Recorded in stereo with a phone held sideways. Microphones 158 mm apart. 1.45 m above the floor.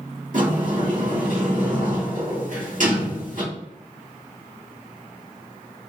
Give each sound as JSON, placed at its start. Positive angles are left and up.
{"t": 0.3, "sound": "a sliding door", "side_deg": -65, "distance_m": 1.8}